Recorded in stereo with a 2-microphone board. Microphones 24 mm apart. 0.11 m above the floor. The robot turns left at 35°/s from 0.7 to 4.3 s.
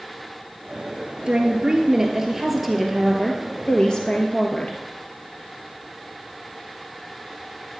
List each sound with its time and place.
1.3 s a woman speaking: 125° right, 2 m; by 4.8 s 125° left, 2 m